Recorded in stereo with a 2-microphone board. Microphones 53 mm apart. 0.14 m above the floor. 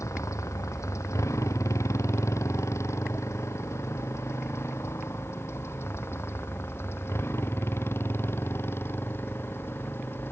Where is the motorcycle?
70° left (ahead or behind); by 10.3 s 45° left (ahead or behind).